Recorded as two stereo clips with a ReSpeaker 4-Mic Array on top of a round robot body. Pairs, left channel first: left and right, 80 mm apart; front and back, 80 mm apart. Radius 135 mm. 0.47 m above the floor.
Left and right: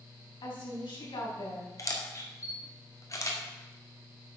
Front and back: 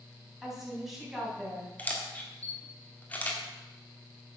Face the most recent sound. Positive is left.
turn(degrees=65)